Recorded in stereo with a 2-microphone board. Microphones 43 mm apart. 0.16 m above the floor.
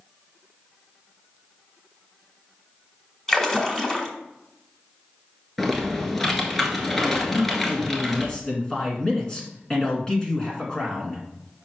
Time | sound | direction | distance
3.3 | a splash | 10° left (ahead or behind) | 1.5 m
5.6 | typing on a keyboard | 5° left (ahead or behind) | 1.4 m
7.3 | a man speaking | 20° left (ahead or behind) | 1.9 m